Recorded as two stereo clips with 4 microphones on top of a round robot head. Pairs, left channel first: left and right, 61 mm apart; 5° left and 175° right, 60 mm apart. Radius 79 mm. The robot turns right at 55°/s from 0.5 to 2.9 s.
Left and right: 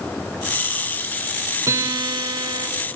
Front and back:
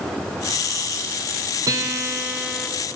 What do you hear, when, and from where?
1.7 s a guitar: 140° right, 4.5 m; by 2.7 s 80° right, 4.5 m